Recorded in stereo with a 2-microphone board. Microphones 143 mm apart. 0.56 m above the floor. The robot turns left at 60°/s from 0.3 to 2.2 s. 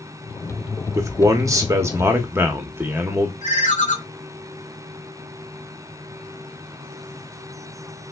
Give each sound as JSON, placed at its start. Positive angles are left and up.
{"t": 0.9, "sound": "a man speaking", "side_deg": -20, "distance_m": 0.6}
{"t": 3.4, "sound": "a ringtone", "side_deg": 60, "distance_m": 0.8}